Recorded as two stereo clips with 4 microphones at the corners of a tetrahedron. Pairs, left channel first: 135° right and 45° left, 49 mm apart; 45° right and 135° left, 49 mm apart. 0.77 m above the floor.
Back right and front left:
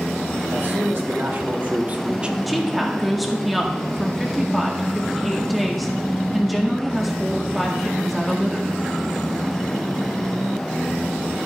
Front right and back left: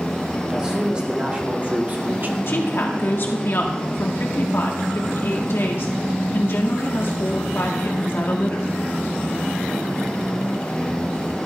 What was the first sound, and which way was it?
A man speaking, 65° left.